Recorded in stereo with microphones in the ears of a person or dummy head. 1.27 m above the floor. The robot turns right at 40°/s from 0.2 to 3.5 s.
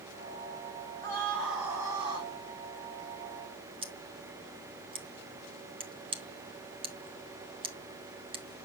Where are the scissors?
30° right (ahead or behind), 0.8 m.